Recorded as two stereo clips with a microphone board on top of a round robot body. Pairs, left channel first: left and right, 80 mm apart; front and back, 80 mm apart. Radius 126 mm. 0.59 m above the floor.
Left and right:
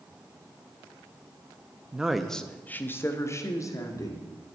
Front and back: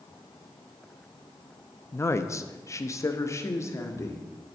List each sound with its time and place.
1.9 s a woman speaking: 25° right, 0.7 m; by 4.2 s 50° left, 1.5 m